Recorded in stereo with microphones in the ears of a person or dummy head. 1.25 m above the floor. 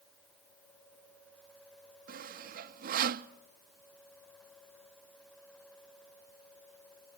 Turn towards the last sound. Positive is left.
turn(degrees=-45)  # may be behind; listen again after turning